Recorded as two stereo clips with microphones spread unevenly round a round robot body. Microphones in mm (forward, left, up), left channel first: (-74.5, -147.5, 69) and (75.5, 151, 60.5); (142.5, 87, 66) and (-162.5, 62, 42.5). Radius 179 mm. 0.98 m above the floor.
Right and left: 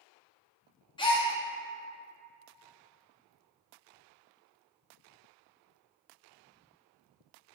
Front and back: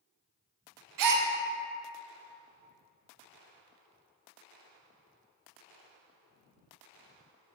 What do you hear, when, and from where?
1.0 s a gasp: 170° left, 0.6 m